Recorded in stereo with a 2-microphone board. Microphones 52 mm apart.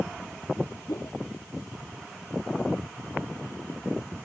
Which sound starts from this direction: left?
A whoosh, at 0.9 s.